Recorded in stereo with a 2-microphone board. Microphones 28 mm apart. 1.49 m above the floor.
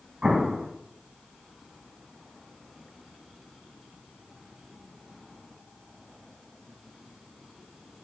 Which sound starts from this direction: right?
An explosion, at 0.2 s.